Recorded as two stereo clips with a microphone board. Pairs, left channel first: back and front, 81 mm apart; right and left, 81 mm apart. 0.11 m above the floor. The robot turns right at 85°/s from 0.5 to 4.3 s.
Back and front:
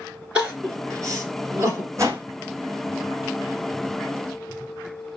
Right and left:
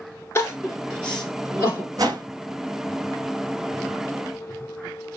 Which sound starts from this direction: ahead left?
A whoosh, at 2.0 s.